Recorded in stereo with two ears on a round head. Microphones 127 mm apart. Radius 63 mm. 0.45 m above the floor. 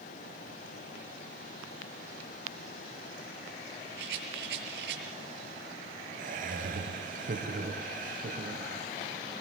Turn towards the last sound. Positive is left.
turn(degrees=-60)  # may be behind; listen again after turning